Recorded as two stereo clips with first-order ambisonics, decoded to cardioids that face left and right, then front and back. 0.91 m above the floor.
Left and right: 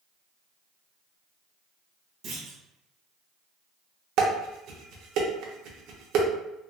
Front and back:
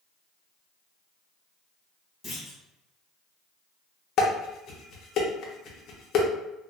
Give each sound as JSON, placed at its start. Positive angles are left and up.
{"t": 2.2, "sound": "a clunk", "azimuth_deg": -60, "distance_m": 1.0}
{"t": 4.2, "sound": "dishes clattering", "azimuth_deg": -55, "distance_m": 0.6}